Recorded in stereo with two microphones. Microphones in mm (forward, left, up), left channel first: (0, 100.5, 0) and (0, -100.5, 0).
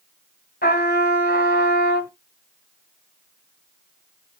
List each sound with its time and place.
0.6 s a trumpet: 55° left (ahead or behind), 1.3 m